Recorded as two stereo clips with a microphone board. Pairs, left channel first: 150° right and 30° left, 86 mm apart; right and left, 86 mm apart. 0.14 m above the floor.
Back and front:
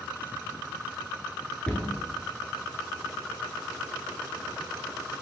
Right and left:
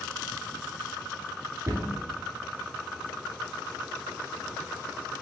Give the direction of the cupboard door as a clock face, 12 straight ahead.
8 o'clock.